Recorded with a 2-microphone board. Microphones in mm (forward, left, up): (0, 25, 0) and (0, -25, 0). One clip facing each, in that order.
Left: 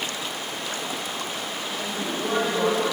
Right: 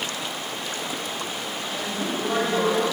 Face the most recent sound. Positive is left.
turn(degrees=-15)  # may be behind; listen again after turning